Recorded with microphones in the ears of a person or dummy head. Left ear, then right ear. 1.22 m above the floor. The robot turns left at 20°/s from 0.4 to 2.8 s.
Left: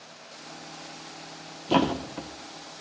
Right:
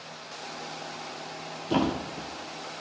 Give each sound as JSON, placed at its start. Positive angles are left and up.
{"t": 1.7, "sound": "a thud", "side_deg": 25, "distance_m": 1.0}